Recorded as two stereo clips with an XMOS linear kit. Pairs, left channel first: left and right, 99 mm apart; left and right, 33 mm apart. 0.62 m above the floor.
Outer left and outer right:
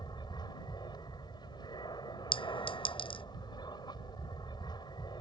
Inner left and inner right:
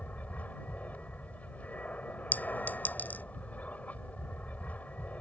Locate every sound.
0.0 s an aircraft: 50° left (ahead or behind)
2.3 s a clink: 65° left (ahead or behind)